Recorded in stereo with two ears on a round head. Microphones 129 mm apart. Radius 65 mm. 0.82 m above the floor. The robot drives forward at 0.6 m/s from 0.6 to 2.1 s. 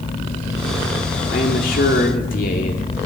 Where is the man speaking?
70° left (ahead or behind), 2 m; by 2.9 s 65° left (ahead or behind), 2 m.